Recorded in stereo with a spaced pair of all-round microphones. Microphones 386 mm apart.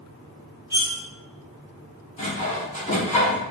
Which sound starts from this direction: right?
Cutlery clinking, at 0.7 s.